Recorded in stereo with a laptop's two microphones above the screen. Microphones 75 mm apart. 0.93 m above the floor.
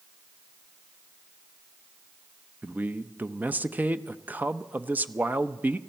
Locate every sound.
2.6 s a man speaking: 25° right (ahead or behind), 0.6 m